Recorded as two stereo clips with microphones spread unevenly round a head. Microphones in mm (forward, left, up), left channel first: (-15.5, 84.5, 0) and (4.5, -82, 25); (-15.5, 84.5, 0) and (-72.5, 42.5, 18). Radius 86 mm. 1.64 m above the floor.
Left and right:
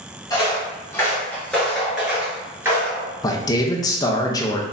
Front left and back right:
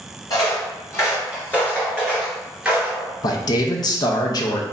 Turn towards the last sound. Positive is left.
turn(degrees=25)